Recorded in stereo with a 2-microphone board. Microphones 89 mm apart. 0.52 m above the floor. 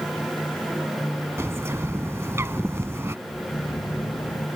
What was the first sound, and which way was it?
A bird, 30° right (ahead or behind).